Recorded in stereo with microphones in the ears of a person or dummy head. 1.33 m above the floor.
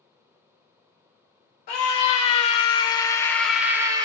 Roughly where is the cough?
No cough in this recording.